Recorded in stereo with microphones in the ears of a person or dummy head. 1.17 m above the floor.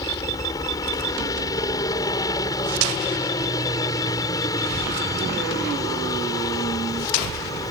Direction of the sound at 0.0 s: 25° left (ahead or behind).